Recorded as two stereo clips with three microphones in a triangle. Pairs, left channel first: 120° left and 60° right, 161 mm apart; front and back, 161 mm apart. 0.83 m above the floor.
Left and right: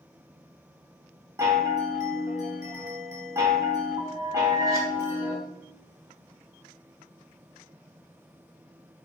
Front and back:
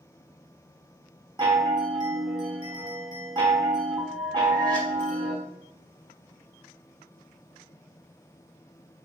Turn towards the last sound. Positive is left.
turn(degrees=-125)